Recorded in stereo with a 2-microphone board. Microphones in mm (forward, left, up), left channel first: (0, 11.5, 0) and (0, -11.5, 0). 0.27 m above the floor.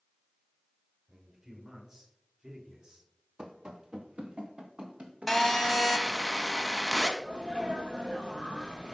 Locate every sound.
1.1 s a man speaking: 40° right (ahead or behind), 4.5 m; by 3.1 s 45° right (ahead or behind), 2 m
3.4 s running footsteps: 40° right (ahead or behind), 1.2 m; by 5.8 s 80° right, 3 m
5.3 s a phone buzzing: 5° left (ahead or behind), 1.4 m
7.2 s a sneeze: 40° right (ahead or behind), 1.7 m